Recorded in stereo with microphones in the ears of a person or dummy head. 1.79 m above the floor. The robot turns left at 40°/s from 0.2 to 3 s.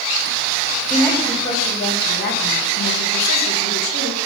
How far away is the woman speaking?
About 1.9 m.